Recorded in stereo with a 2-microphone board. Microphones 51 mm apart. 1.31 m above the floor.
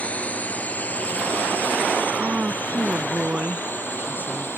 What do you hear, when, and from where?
0.0 s a drone: 25° left (ahead or behind); by 4.6 s 40° left (ahead or behind)
2.1 s a woman speaking: 30° right (ahead or behind)